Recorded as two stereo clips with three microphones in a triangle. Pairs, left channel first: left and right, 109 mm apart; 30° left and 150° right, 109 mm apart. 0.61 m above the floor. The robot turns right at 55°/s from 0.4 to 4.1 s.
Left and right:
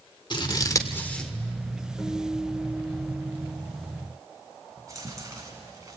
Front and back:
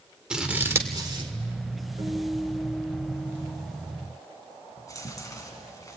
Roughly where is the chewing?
Ahead right.